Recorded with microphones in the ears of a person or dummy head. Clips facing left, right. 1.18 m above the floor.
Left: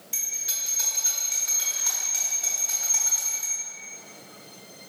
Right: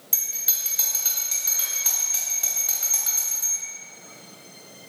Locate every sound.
0.1 s a bell: 60° right (ahead or behind), 3 m